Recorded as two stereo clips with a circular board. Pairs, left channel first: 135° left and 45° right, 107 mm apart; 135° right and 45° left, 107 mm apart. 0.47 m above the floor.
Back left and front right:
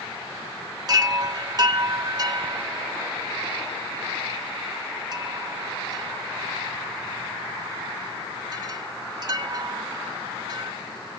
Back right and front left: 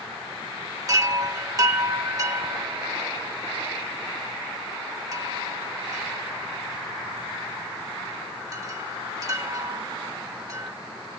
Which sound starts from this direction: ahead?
A chime, at 0.9 s.